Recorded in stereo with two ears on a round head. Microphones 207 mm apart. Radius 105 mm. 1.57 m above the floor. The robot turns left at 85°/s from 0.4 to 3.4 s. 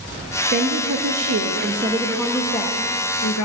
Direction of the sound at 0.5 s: 35° right.